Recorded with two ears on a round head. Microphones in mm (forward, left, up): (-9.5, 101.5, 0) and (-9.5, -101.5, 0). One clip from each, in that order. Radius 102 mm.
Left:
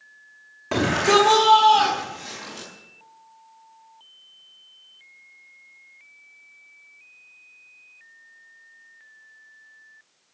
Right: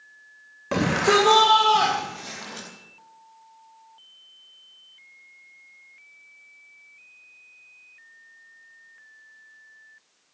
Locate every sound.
0.7 s a shout: 5° left (ahead or behind), 2.5 m; by 2.7 s 40° right (ahead or behind), 4 m